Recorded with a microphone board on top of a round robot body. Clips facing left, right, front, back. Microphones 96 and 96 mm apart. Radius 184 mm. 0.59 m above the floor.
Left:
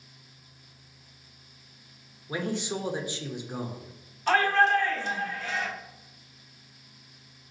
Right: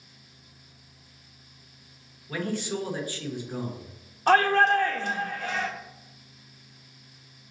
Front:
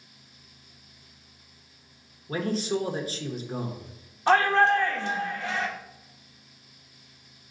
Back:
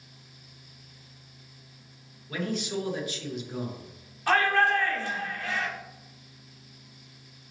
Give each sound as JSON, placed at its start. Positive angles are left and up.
{"t": 2.3, "sound": "a man speaking", "azimuth_deg": 30, "distance_m": 1.0}
{"t": 4.3, "sound": "a shout", "azimuth_deg": -60, "distance_m": 0.9}